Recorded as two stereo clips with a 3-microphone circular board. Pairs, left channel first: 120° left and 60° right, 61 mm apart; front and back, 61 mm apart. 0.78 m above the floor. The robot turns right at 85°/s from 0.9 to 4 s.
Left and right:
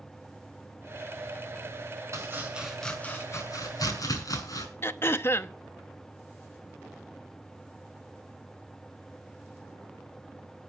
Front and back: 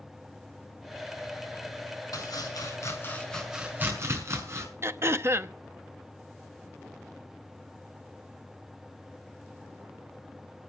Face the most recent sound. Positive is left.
turn(degrees=155)